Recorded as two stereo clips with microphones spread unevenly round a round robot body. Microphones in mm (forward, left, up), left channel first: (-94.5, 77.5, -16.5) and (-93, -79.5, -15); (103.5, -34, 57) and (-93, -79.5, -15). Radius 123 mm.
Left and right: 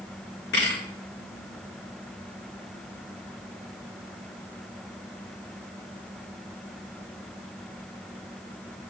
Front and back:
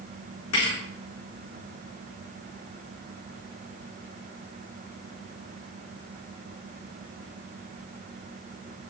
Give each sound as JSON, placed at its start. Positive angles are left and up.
{"t": 0.5, "sound": "a thud", "azimuth_deg": 45, "distance_m": 6.5}